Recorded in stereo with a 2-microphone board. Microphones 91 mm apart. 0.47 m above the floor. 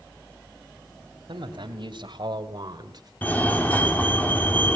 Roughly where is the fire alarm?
Centre.